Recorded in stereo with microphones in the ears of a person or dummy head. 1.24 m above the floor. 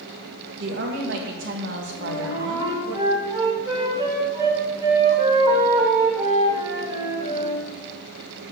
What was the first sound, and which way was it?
A woman speaking, 55° right (ahead or behind).